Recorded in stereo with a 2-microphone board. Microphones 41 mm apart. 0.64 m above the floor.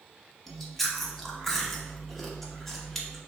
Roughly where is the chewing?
Centre.